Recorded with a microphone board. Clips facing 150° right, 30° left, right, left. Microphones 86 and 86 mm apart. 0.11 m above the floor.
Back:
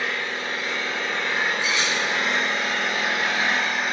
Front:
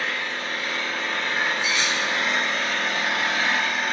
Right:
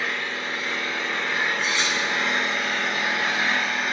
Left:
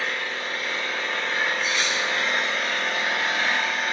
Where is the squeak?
I don't hear a squeak.